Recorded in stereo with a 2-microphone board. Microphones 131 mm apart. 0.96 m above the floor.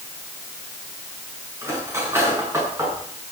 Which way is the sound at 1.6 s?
20° right (ahead or behind).